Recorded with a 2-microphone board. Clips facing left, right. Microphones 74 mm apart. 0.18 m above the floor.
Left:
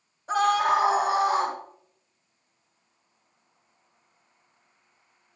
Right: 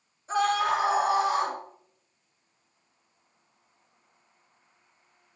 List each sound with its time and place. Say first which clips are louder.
0.3 s a scream: left 3 dB; 70° left (ahead or behind), 4 m; by 1.6 s 55° left (ahead or behind), 4.5 m